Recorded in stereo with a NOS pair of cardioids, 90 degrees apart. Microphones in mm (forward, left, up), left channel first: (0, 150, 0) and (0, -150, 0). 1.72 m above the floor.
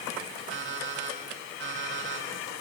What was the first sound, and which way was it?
An alarm clock, 45° right.